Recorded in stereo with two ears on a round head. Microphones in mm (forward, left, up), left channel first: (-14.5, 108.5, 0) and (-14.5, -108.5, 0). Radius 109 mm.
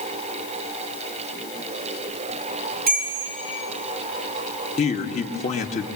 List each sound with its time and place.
2.9 s a bell: 40° right (ahead or behind), 8.5 m
4.8 s a man speaking: 25° left (ahead or behind), 1.6 m